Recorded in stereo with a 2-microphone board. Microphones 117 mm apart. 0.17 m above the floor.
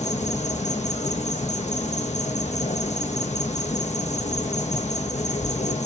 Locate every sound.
0.0 s an insect: 85° left, 1.0 m